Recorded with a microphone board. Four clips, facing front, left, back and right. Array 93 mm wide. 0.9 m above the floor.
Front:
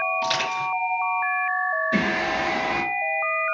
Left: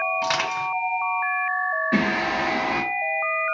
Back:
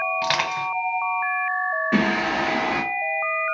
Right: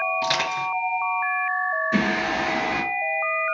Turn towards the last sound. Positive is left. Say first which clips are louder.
# even, back 2 dB
turn(degrees=145)